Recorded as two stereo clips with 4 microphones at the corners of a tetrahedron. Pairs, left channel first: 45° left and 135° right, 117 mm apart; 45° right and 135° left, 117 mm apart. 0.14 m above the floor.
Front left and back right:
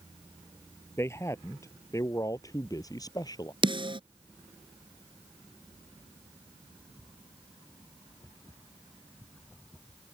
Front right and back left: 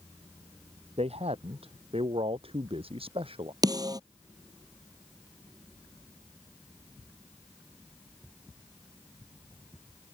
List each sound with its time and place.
1.0 s a man speaking: 110° left; by 3.5 s 100° left
3.6 s a snare drum: 175° right